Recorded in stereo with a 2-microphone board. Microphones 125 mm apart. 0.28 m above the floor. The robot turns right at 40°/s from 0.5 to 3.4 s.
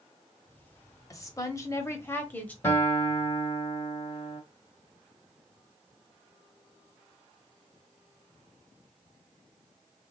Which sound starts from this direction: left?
A woman speaking, at 1.1 s.